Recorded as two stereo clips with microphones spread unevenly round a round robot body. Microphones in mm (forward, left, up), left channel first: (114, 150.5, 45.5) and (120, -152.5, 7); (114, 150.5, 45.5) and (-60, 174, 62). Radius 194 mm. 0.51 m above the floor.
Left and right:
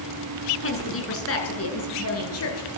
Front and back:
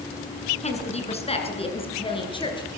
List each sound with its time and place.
0.6 s a woman speaking: 45° left, 8 m; by 2.7 s 55° left, 10.5 m